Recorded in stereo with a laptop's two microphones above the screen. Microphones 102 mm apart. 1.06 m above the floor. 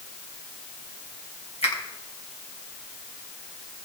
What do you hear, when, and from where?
1.6 s a finger snap: 85° left, 4 m